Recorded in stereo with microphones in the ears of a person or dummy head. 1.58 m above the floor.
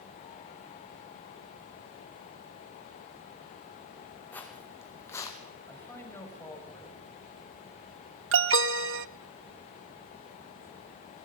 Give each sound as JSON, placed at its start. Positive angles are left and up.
{"t": 4.3, "sound": "footsteps", "side_deg": 10, "distance_m": 4.0}
{"t": 5.7, "sound": "a man speaking", "side_deg": 10, "distance_m": 7.0}
{"t": 8.3, "sound": "an alarm", "side_deg": -65, "distance_m": 0.8}